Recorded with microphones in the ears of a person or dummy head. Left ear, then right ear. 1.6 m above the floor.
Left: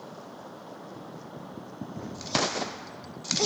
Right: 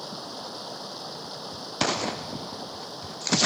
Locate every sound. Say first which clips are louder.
0.0 s running water: right 7 dB; 80° right